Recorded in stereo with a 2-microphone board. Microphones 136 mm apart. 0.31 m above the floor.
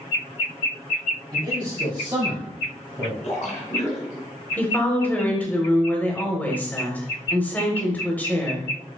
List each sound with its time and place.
1.3 s a man speaking: 35° right (ahead or behind), 1.8 m; by 3.1 s 25° right (ahead or behind), 1.6 m
3.2 s a splash: 65° left (ahead or behind), 2 m
4.6 s a woman speaking: 15° left (ahead or behind), 1.0 m